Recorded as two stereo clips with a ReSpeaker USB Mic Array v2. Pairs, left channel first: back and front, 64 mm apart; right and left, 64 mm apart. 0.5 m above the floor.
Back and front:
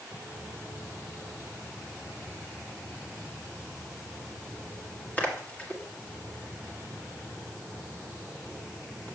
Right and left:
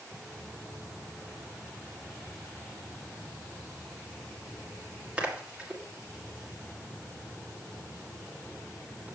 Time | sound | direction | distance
0.1 | a splash | 145° left | 1.5 m